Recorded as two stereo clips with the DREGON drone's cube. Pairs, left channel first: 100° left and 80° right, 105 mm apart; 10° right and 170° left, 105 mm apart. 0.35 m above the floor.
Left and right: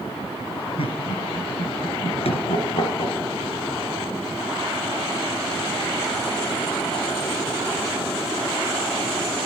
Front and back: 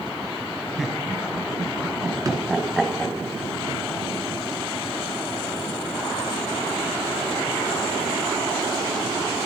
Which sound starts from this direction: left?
Laughter, at 0.8 s.